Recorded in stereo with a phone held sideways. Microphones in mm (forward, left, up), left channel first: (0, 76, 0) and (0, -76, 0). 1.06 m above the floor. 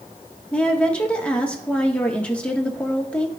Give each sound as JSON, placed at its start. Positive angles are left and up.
{"t": 0.5, "sound": "a woman speaking", "side_deg": 10, "distance_m": 1.2}